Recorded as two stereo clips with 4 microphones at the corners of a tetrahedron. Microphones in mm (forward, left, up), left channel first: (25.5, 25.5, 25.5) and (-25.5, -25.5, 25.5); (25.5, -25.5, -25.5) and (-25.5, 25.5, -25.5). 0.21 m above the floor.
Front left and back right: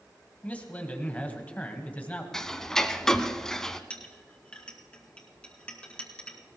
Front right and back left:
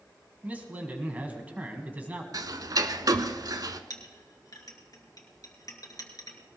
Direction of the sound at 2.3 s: 130° left.